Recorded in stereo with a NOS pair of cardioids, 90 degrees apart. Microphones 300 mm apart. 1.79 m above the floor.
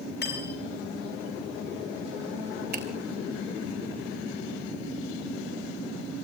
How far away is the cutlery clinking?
About 7 m.